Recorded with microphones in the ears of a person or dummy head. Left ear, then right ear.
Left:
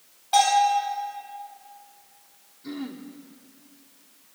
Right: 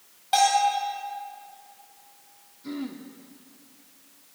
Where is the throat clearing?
Centre (ahead or behind), 1.3 m.